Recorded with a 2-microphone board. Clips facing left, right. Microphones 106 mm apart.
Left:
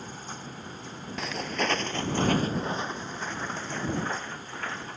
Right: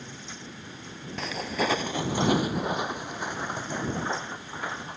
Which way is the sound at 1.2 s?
Centre (ahead or behind).